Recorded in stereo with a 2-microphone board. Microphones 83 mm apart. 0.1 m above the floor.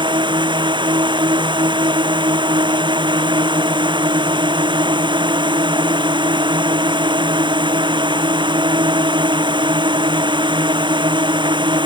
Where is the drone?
75° right (ahead or behind).